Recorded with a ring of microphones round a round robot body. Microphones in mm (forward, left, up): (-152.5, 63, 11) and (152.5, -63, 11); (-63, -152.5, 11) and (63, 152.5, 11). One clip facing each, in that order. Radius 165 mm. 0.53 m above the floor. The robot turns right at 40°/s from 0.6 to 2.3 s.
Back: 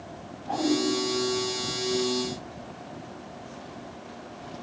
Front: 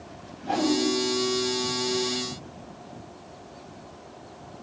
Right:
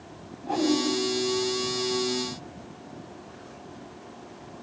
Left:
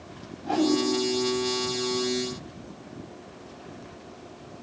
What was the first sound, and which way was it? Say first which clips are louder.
A whoosh: front 1 dB, left 1 dB; 15° left.